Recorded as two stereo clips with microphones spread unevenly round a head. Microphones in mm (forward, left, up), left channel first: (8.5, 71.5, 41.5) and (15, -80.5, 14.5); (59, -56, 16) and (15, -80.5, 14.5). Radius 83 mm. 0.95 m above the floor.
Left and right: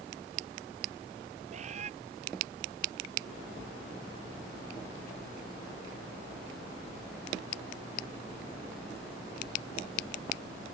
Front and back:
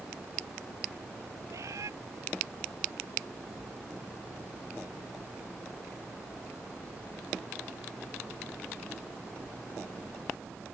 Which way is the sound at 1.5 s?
140° right.